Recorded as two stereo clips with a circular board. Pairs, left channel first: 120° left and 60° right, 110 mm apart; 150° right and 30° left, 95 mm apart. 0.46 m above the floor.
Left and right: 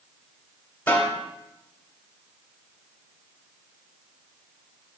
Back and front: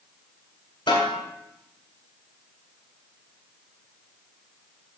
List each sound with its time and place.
0.9 s a snare drum: 165° right, 2.5 m